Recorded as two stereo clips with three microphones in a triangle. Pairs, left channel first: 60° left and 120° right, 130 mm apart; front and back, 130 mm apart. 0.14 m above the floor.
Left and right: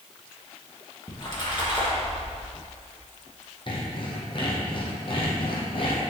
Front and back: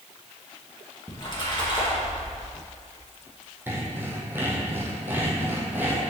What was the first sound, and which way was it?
A splash, 30° left.